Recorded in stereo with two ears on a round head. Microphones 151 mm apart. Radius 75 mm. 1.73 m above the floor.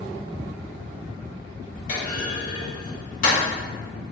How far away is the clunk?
About 1.6 m.